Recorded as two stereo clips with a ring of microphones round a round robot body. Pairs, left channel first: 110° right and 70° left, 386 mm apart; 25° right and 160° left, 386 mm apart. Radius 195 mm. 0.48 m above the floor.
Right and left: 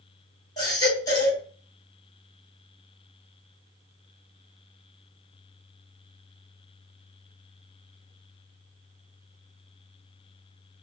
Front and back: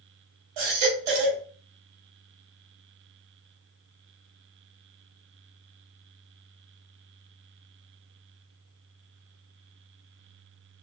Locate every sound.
0.6 s a baby crying: 165° left, 3 m